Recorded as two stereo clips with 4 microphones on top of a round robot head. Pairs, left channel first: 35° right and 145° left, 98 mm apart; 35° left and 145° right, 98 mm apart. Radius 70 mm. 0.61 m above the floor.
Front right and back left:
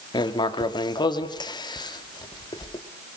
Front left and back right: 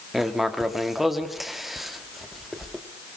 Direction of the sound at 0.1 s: 55° right.